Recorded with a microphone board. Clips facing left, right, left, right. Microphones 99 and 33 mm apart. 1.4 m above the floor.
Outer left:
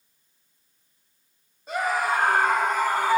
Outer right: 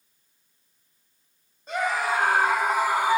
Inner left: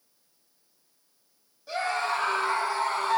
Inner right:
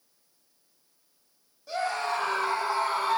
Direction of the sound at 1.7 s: 5° left (ahead or behind).